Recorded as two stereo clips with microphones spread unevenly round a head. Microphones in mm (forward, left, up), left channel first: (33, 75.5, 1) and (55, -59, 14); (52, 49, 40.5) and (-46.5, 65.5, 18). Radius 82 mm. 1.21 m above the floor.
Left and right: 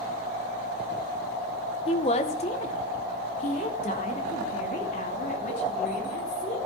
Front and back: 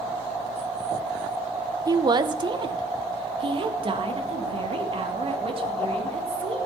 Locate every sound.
1.9 s a woman speaking: 140° left, 0.7 m; by 6.6 s 145° left, 3.5 m